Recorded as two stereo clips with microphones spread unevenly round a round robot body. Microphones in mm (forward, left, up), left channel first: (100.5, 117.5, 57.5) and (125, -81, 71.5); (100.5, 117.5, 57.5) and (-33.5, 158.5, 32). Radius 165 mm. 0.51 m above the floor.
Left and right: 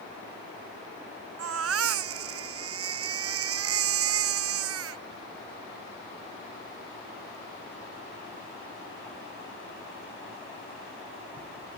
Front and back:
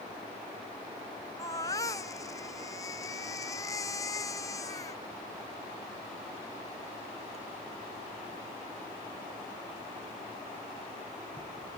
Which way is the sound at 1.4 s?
95° right.